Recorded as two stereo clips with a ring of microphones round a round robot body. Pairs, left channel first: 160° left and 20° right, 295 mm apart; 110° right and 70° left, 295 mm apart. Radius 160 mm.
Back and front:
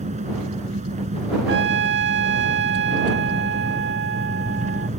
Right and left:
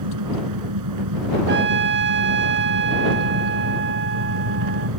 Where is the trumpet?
20° left.